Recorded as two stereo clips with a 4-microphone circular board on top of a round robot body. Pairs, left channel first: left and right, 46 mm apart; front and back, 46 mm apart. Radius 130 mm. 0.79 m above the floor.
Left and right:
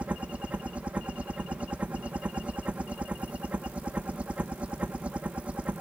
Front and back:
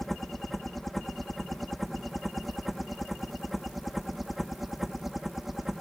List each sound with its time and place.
0.0 s a helicopter: 80° right; by 5.8 s 100° right